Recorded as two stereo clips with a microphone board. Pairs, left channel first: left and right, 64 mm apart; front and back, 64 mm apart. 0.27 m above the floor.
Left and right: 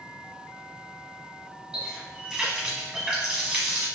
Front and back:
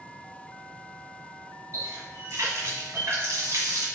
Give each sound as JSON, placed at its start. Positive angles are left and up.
{"t": 1.7, "sound": "a running tap", "azimuth_deg": -160, "distance_m": 1.1}